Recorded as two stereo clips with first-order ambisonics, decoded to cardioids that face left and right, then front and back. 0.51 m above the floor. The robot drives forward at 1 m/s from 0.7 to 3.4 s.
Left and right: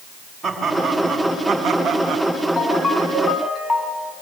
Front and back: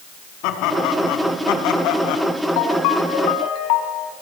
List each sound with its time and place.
0.4 s laughter: 10° right, 5 m
2.6 s a ringtone: 10° left, 3.5 m; by 4.1 s 15° left, 3 m